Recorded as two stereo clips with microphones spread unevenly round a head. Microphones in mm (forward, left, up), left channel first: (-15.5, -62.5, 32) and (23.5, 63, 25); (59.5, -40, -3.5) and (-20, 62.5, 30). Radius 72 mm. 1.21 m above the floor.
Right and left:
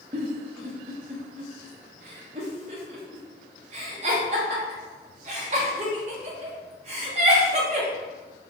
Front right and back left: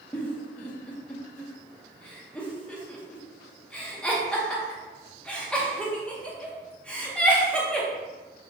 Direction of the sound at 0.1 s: 40° left.